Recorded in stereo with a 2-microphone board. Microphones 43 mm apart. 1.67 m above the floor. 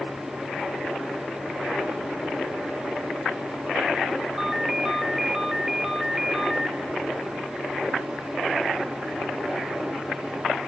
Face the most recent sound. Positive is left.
turn(degrees=-10)  # may be behind; listen again after turning